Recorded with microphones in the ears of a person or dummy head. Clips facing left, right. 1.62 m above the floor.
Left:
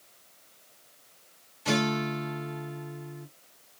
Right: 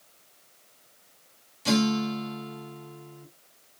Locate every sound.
1.6 s a guitar: 55° right (ahead or behind), 2.0 m